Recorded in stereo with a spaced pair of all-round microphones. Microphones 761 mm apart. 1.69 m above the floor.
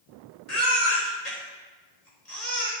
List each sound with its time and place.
0.5 s a baby crying: 55° left (ahead or behind), 3.5 m